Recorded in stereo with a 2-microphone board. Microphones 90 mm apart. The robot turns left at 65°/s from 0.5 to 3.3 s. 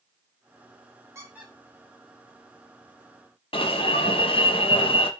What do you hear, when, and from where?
1.1 s a squeak: 30° right (ahead or behind), 4 m; by 3.0 s 90° left, 4 m
3.5 s an alarm: 75° left (ahead or behind), 1.1 m